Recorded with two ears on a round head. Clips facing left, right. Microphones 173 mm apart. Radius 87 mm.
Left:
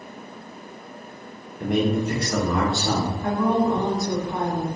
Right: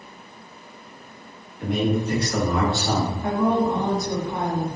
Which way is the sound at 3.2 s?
Centre (ahead or behind).